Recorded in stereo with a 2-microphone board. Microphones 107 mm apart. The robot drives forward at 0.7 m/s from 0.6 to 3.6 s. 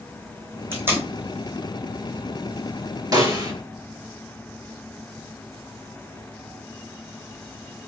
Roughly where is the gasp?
No gasp in this recording.